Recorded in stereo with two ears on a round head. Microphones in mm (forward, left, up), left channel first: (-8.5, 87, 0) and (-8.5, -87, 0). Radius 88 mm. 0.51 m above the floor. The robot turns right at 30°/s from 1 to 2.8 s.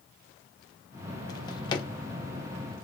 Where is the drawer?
20° left (ahead or behind), 0.5 m.